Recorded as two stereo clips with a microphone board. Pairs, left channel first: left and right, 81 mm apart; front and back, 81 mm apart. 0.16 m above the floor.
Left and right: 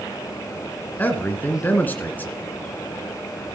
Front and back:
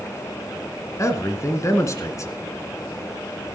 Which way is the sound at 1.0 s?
30° left.